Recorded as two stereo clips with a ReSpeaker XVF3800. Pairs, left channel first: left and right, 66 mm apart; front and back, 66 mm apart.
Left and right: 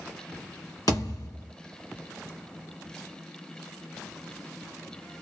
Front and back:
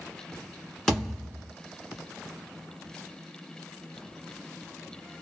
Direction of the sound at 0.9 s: 80° left.